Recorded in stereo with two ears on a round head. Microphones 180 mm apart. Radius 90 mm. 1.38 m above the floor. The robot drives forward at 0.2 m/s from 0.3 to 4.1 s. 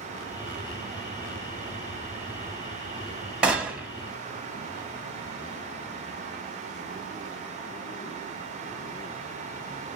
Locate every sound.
3.4 s a gunshot: 5° right (ahead or behind), 0.9 m